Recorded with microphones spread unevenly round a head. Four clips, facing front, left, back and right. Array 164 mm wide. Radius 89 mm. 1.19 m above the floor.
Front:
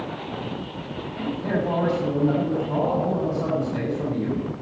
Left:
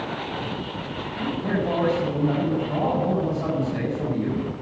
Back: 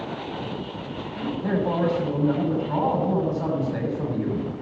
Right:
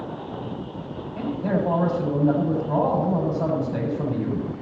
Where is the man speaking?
100° right, 6.5 m.